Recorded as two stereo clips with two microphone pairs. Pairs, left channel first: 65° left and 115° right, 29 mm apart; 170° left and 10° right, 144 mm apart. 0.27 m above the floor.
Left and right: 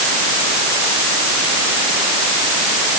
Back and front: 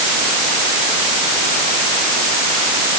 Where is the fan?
No fan in this recording.